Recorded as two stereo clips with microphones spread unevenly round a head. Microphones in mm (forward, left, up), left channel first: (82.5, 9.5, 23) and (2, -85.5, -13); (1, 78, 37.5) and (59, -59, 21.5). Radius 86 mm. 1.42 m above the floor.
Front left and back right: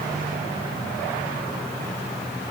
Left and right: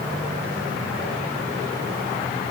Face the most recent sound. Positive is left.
No sound to turn to.